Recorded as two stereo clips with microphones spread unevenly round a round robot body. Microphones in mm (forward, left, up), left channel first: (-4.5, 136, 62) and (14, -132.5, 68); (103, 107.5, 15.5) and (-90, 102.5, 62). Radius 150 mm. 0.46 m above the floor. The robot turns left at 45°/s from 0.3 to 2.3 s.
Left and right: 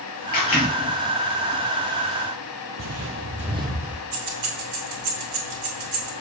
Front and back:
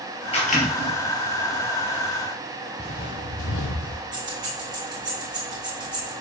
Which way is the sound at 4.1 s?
100° right.